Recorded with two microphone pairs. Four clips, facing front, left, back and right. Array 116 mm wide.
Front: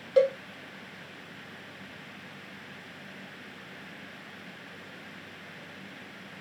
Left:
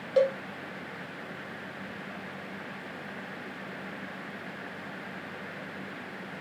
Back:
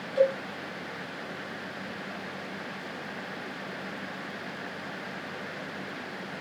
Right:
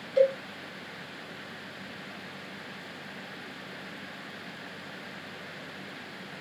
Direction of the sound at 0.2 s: 45° left.